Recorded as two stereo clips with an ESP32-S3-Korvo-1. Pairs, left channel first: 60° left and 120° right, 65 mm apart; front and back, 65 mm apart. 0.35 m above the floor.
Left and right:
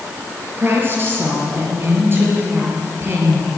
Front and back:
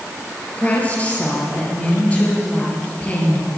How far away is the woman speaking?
About 7 m.